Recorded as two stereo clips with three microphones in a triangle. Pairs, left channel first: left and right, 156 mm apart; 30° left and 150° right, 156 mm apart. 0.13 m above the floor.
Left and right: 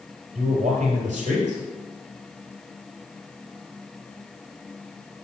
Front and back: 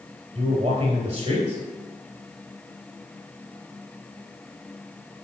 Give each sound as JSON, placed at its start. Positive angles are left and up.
{"t": 0.3, "sound": "a man speaking", "azimuth_deg": -110, "distance_m": 2.5}